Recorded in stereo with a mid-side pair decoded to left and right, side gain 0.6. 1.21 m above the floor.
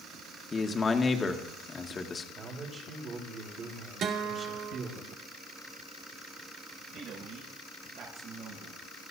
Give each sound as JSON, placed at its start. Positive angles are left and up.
{"t": 0.5, "sound": "a man speaking", "azimuth_deg": 25, "distance_m": 1.9}
{"t": 2.4, "sound": "a man speaking", "azimuth_deg": -40, "distance_m": 4.0}
{"t": 4.0, "sound": "a guitar", "azimuth_deg": -55, "distance_m": 2.5}
{"t": 6.9, "sound": "a man speaking", "azimuth_deg": -60, "distance_m": 7.5}